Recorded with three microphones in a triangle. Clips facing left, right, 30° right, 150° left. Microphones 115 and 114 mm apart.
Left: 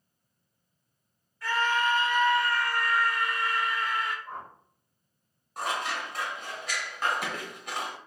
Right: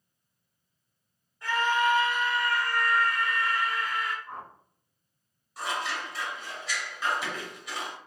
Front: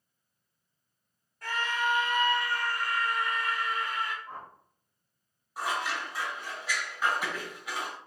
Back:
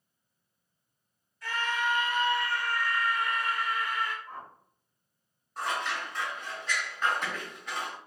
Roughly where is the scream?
Ahead right.